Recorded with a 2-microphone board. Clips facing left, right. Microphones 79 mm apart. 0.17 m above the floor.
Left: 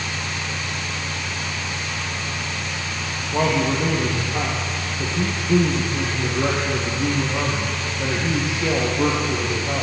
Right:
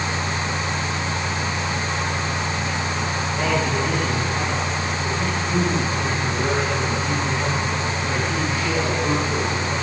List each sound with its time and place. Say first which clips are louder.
3.3 s a man speaking: left 4 dB; 70° left (ahead or behind), 9 m